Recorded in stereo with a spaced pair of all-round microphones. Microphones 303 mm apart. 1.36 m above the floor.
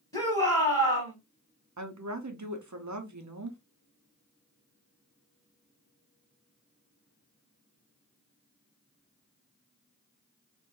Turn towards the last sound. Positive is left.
turn(degrees=-65)  # may be behind; listen again after turning